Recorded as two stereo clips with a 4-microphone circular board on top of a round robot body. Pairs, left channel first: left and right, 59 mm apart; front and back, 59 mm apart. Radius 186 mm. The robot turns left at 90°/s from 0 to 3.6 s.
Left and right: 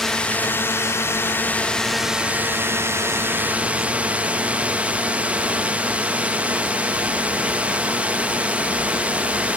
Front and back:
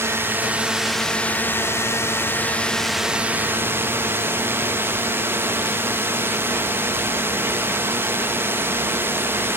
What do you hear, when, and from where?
0.0 s a drone: 175° left; by 9.6 s 150° right